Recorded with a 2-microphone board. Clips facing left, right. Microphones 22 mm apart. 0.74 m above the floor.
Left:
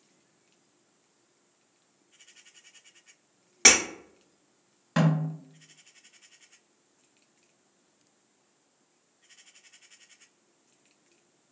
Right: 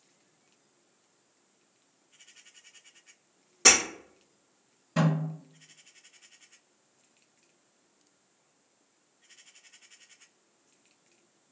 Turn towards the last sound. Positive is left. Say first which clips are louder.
# left 2 dB
turn(degrees=55)  # may be behind; listen again after turning